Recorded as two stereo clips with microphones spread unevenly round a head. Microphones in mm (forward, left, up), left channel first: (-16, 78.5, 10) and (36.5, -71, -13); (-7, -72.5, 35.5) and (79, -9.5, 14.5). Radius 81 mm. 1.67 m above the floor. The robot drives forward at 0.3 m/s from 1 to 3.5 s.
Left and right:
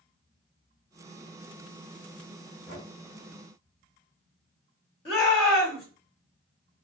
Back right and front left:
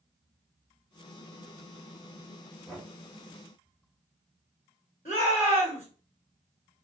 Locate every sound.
2.7 s knocking: 140° left, 1.7 m; by 2.9 s 145° left, 1.7 m
5.0 s a shout: 170° left, 2.5 m